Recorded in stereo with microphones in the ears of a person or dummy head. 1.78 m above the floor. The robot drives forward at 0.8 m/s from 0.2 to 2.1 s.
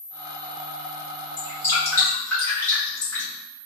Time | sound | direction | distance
1.4 | dripping | 25° left (ahead or behind) | 1.7 m